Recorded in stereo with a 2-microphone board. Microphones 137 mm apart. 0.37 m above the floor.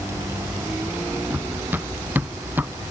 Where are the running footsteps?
15° right (ahead or behind); by 2.7 s 10° right (ahead or behind).